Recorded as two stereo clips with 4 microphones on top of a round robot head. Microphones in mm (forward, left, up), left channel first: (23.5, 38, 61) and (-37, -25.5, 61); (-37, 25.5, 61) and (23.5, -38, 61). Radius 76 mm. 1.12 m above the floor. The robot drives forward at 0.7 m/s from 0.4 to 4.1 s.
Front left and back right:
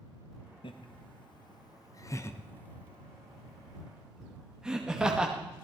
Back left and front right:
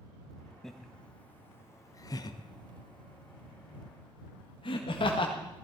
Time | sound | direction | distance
0.6 | laughter | 50° left | 1.5 m